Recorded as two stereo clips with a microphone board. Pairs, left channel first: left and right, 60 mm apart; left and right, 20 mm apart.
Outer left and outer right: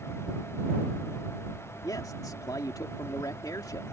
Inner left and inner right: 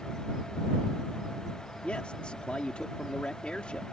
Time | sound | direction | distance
1.8 | a man speaking | 85° left | ?